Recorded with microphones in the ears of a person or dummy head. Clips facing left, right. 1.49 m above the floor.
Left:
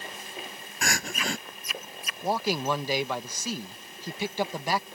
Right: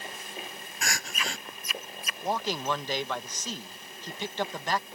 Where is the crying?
50° left (ahead or behind).